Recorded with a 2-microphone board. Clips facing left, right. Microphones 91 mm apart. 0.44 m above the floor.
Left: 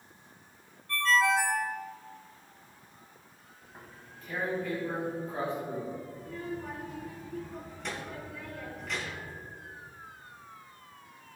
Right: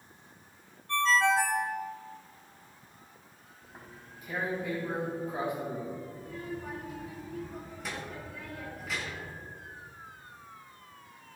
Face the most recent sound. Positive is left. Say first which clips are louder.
# left 1 dB
turn(degrees=-5)  # may be behind; listen again after turning